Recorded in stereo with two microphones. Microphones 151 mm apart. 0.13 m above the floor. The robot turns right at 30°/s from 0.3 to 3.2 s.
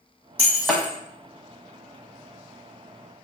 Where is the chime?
No chime in this recording.